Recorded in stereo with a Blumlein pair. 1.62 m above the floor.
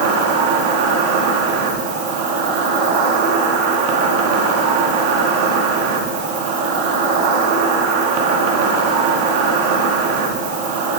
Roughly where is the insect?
Ahead right.